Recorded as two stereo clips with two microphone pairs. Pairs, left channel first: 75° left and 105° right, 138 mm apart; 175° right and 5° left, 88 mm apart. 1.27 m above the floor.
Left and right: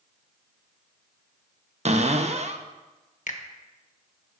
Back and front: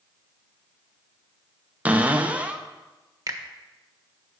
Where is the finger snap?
55° left, 1.3 m.